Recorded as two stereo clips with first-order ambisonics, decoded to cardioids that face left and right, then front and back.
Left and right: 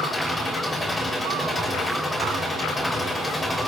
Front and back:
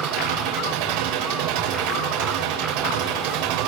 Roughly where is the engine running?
Behind.